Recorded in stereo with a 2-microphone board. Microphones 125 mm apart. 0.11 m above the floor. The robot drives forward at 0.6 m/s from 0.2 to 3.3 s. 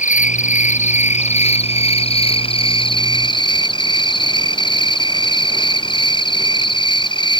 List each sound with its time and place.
0.0 s an insect: 80° left; by 7.4 s 40° left (ahead or behind)